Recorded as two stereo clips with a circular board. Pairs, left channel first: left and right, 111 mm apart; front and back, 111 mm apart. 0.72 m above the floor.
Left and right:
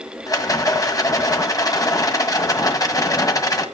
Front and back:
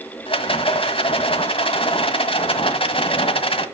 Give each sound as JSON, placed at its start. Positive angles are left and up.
{"t": 0.3, "sound": "a rattle", "azimuth_deg": 35, "distance_m": 1.6}